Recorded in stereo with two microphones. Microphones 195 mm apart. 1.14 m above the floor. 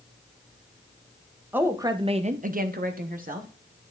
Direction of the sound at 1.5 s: 10° right (ahead or behind).